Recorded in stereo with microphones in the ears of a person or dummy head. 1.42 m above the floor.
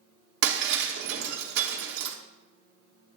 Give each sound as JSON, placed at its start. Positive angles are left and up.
{"t": 0.4, "sound": "breaking glass", "side_deg": -65, "distance_m": 1.6}